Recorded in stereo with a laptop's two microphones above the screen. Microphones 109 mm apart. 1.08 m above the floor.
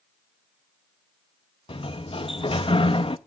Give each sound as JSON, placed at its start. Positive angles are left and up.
{"t": 1.7, "sound": "a sliding door", "side_deg": 55, "distance_m": 0.5}